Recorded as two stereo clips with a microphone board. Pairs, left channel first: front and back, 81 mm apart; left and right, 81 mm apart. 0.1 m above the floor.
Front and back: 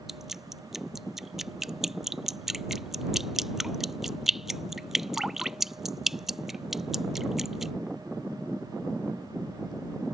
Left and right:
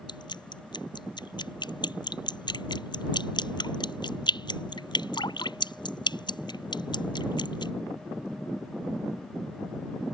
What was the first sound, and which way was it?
Dripping, 95° left.